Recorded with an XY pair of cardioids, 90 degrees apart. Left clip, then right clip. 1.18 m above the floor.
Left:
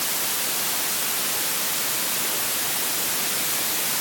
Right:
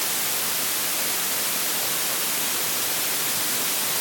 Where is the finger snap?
I don't hear a finger snap.